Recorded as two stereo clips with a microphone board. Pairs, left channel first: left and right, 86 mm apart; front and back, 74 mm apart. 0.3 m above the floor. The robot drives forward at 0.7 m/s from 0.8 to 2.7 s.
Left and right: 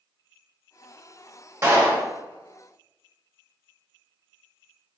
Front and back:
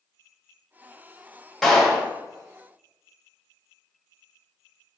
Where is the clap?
85° right, 1.0 m; by 2.1 s 115° right, 1.1 m.